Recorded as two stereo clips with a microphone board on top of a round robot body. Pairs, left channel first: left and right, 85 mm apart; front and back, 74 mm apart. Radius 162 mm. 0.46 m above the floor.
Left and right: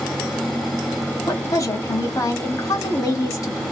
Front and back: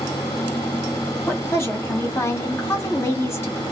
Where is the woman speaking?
50° left, 1.7 m.